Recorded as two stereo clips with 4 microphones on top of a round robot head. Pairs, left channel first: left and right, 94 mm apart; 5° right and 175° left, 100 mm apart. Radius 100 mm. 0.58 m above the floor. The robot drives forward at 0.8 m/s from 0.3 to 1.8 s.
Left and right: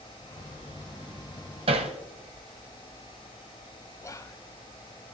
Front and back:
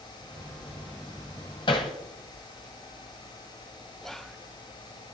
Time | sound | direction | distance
1.7 | hammering | 55° right | 1.1 m
4.0 | whispering | 80° left | 0.8 m